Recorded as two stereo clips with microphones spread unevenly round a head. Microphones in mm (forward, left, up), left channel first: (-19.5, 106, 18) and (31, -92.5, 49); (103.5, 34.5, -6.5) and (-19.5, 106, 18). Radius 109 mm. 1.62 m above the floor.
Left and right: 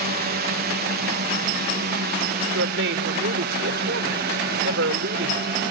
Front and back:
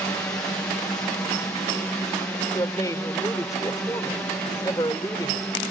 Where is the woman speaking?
105° right.